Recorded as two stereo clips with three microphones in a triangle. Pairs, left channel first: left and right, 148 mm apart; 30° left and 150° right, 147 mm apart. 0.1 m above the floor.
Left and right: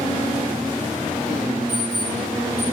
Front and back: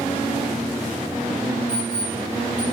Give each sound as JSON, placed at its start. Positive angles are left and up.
{"t": 1.7, "sound": "an alarm clock", "azimuth_deg": 145, "distance_m": 7.5}